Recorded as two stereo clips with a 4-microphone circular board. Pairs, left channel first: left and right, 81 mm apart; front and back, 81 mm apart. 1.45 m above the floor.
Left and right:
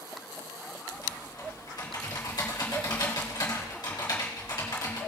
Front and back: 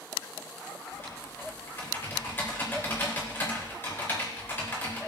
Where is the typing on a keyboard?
65° left, 3.5 m.